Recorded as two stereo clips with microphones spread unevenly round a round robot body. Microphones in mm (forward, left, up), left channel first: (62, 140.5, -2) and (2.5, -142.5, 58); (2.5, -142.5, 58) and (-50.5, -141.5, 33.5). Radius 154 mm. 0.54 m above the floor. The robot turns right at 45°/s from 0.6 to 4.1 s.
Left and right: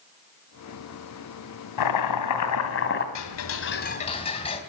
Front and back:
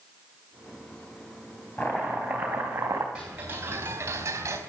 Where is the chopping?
80° left, 3 m; by 3.0 s 135° left, 3 m.